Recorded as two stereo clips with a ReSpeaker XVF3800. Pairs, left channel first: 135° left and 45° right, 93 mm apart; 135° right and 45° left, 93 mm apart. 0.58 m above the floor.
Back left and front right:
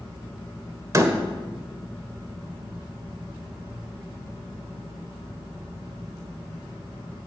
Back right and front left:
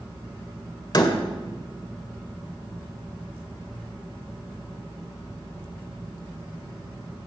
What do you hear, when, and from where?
0.9 s a door slam: 100° right, 1.7 m